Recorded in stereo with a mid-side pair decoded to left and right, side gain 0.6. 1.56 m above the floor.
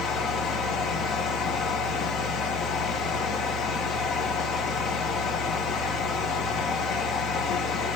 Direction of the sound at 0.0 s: 55° left.